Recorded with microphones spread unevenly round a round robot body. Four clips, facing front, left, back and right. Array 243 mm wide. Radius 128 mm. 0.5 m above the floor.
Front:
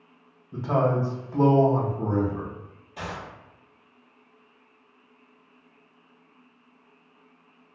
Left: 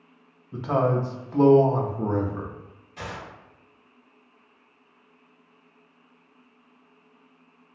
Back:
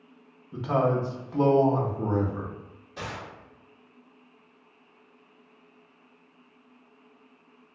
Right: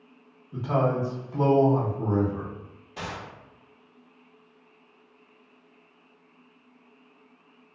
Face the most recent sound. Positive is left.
turn(degrees=-100)